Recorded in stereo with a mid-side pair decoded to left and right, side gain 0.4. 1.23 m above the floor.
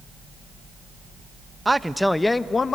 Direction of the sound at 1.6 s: 20° right.